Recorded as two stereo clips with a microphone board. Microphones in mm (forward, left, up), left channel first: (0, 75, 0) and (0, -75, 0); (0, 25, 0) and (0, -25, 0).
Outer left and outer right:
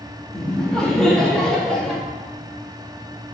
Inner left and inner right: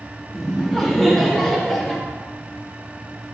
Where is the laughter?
5° left (ahead or behind), 1.3 m.